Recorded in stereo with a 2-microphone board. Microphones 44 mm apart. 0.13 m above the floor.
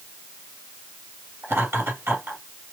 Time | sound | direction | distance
1.4 | laughter | 60° right (ahead or behind) | 3 m